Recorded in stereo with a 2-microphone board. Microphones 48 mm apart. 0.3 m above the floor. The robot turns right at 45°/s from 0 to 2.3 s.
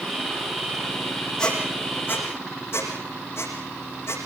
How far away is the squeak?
About 7.5 m.